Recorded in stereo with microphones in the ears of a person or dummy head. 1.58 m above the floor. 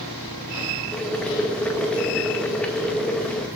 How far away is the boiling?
About 2 m.